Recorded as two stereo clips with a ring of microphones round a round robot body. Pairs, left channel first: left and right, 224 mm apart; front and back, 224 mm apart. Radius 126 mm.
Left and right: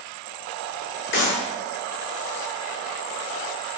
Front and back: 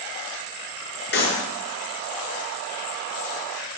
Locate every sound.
1.1 s a clap: 40° left, 6.5 m